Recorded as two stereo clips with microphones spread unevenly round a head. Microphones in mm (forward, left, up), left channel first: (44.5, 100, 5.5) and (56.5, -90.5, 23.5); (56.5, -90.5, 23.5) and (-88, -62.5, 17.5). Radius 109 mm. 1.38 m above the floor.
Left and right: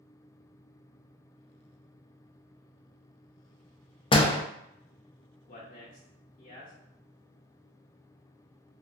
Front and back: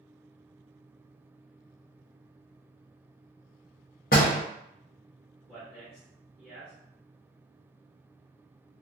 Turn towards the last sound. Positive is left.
turn(degrees=70)